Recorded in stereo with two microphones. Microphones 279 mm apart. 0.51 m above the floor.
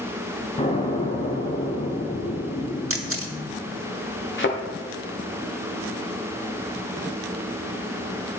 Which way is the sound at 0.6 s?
25° left (ahead or behind).